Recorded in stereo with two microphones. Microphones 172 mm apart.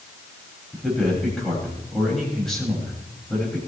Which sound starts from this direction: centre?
A man speaking, at 0.7 s.